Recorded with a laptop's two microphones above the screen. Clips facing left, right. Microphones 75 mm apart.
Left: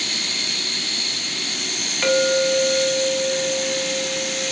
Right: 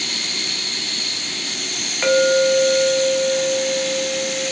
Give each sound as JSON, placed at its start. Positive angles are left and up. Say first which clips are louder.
{"t": 2.0, "sound": "a clink", "louder": "right 3 dB", "side_deg": -15, "distance_m": 5.0}